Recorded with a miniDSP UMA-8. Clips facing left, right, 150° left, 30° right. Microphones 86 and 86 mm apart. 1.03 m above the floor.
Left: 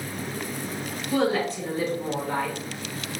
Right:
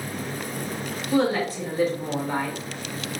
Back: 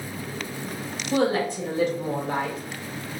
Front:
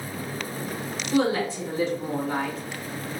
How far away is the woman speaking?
About 1.3 m.